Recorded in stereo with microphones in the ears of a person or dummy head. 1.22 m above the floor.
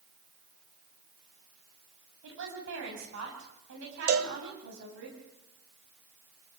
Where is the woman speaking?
65° right (ahead or behind), 7.5 m.